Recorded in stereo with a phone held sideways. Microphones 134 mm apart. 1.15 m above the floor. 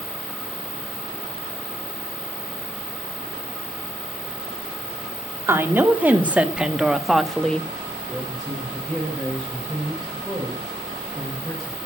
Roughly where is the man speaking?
Centre.